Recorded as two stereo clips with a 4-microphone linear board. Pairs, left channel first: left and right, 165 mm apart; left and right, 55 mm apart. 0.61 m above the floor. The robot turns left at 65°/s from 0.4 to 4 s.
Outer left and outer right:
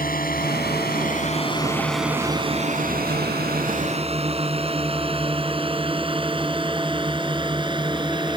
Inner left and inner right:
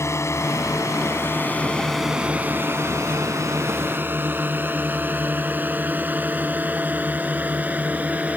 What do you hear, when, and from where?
0.0 s a drone: 65° left (ahead or behind); by 8.4 s 30° right (ahead or behind)